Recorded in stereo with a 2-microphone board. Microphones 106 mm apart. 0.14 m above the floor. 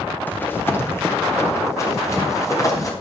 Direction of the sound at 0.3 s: 15° left (ahead or behind).